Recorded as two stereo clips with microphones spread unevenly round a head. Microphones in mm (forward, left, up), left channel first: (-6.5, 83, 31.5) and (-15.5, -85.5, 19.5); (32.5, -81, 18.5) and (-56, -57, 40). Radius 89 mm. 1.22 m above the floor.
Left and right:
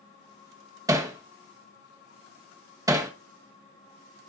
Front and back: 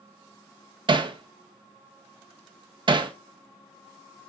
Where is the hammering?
165° right, 1.3 m.